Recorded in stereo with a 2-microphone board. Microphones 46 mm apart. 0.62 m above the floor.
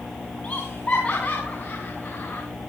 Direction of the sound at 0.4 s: 25° left (ahead or behind).